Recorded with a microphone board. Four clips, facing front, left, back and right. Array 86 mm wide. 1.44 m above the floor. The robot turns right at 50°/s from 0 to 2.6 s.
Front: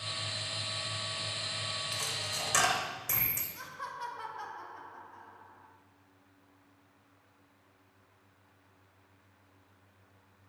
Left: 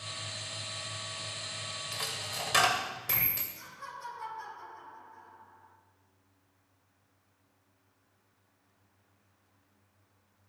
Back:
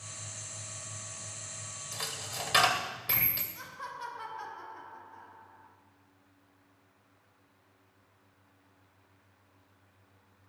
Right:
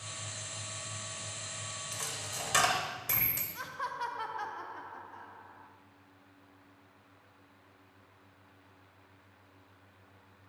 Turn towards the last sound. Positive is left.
turn(degrees=-90)